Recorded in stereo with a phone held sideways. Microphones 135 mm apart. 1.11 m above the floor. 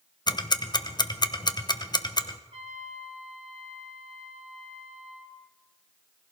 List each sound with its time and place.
0.3 s ticking: 35° left (ahead or behind), 0.7 m
2.5 s a trumpet: 60° right (ahead or behind), 2.5 m